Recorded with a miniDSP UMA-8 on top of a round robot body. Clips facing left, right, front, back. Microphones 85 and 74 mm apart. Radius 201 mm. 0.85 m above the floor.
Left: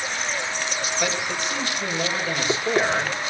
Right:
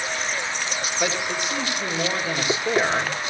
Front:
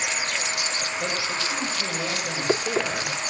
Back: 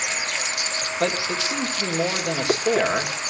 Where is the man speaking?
165° right, 4.5 m.